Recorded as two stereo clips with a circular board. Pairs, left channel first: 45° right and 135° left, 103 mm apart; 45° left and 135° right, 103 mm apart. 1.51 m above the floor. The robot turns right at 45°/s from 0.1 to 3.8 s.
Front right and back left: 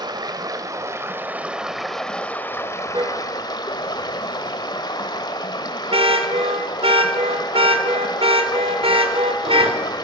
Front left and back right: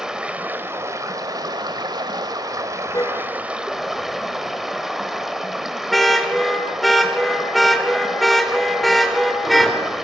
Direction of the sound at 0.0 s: 145° left.